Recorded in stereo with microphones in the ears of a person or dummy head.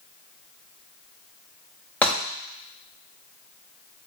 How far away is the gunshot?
About 0.7 m.